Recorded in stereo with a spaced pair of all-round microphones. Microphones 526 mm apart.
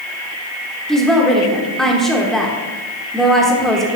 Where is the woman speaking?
Centre (ahead or behind), 0.9 m.